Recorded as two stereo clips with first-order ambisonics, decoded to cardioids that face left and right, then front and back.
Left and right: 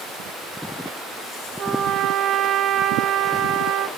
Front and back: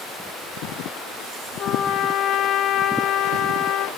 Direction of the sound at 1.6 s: 35° right.